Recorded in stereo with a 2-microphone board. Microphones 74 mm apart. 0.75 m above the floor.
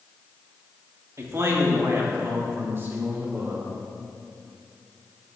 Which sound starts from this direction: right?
A man speaking, at 1.2 s.